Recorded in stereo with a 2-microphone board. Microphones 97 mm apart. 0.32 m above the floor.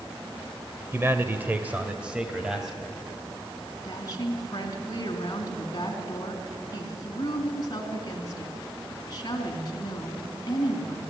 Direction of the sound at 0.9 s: 25° right (ahead or behind).